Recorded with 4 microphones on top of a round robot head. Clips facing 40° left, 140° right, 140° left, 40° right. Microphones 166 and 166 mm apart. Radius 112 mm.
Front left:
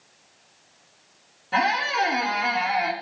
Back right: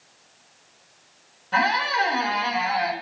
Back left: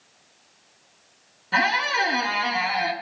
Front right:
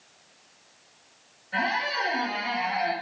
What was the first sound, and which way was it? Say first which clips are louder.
A squeak: even, back left 4 dB; 120° left.